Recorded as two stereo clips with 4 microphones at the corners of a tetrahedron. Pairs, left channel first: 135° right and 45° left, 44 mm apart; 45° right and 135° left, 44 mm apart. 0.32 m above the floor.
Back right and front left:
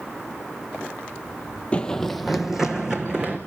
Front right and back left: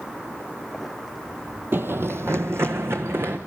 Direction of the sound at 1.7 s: 165° left.